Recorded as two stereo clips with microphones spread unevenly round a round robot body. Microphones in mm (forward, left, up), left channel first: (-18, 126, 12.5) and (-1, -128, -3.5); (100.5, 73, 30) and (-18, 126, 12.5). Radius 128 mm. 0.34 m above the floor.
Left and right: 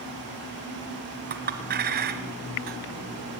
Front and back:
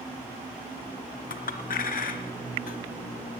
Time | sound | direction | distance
1.3 | a clink | 35° right | 1.2 m